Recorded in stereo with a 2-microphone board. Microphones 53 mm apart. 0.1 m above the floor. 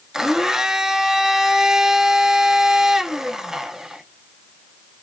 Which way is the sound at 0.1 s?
10° right (ahead or behind).